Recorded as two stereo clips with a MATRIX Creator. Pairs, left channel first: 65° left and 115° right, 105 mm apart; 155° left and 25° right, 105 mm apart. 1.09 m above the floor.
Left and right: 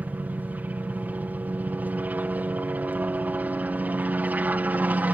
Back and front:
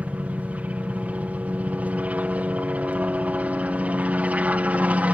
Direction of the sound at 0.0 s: 70° right.